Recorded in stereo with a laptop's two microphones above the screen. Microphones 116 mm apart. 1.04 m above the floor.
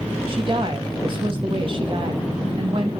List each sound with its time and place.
0.3 s a woman speaking: 45° right (ahead or behind), 1.2 m